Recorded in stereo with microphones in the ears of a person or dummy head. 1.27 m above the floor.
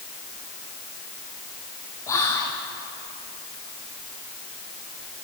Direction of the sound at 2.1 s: 20° left (ahead or behind).